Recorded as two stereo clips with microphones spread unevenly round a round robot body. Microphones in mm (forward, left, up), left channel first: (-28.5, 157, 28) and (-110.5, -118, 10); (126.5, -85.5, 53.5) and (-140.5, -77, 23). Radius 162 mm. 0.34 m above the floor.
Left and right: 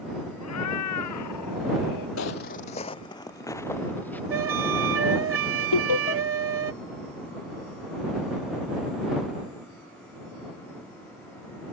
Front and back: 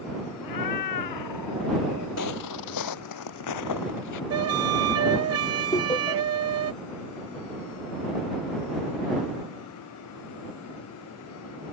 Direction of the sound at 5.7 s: 75° left.